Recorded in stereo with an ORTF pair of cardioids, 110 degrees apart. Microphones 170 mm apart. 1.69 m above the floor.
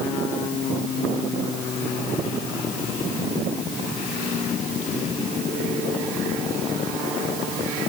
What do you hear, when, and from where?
Only background noise.